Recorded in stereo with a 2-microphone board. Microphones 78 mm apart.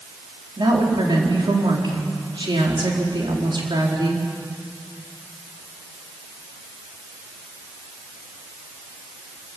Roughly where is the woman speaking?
Right.